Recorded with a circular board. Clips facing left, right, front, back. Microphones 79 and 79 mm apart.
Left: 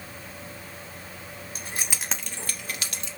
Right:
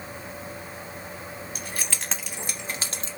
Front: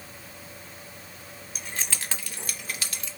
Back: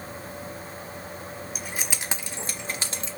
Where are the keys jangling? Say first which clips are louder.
Left 2 dB, front 1 dB; 100° left, 1.1 m; by 3.1 s 125° right, 1.5 m.